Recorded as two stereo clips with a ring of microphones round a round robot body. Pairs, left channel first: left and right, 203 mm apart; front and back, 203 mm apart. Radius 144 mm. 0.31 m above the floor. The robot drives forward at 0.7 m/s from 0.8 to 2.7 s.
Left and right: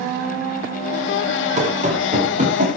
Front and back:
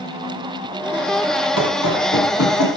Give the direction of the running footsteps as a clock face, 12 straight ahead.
1 o'clock.